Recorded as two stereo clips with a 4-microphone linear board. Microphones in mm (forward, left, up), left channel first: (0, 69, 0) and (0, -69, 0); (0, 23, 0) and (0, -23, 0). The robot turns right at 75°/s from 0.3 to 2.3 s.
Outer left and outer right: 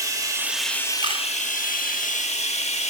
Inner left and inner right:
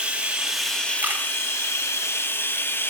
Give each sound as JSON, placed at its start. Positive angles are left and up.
{"t": 0.0, "sound": "running water", "azimuth_deg": -25, "distance_m": 1.1}
{"t": 1.0, "sound": "a camera shutter", "side_deg": -35, "distance_m": 2.5}